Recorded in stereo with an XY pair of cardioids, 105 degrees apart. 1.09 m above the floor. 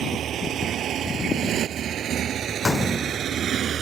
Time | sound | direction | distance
0.0 | a motorcycle | 60° right | ?
2.6 | a gunshot | 25° left | ?